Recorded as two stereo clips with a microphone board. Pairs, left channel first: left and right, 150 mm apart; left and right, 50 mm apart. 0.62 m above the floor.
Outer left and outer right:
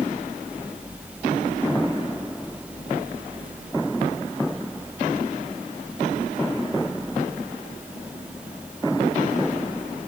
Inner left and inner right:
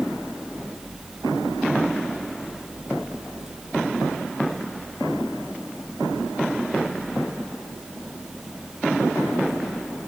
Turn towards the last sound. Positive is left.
No sound to turn to.